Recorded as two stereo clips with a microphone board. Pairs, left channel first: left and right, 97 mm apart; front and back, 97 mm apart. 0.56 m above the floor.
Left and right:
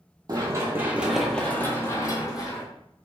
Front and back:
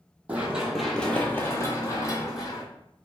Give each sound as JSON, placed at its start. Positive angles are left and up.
{"t": 0.3, "sound": "running footsteps", "azimuth_deg": -110, "distance_m": 0.7}